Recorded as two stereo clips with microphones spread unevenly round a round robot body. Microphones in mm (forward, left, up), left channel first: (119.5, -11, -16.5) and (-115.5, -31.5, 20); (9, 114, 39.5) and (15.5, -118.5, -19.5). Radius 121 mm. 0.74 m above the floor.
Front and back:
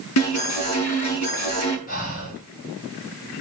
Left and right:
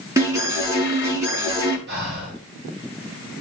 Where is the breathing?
45° right, 4.5 m.